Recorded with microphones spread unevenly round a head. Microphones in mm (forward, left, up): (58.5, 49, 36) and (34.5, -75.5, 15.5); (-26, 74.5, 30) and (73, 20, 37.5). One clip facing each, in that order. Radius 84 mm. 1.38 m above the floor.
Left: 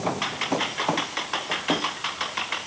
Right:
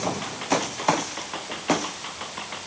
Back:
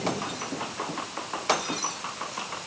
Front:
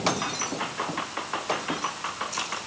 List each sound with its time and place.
Only background noise.